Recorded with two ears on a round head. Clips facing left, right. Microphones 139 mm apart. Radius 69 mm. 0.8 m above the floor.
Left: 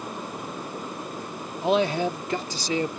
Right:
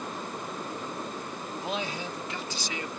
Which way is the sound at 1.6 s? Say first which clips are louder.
Left 13 dB; 55° left (ahead or behind).